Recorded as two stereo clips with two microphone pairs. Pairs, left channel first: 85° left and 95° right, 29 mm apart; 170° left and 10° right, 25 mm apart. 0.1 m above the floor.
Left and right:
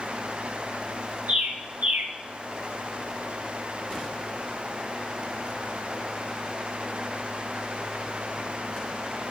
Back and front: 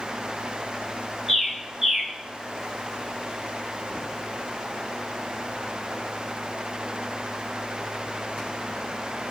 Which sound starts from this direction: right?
A bird, at 1.3 s.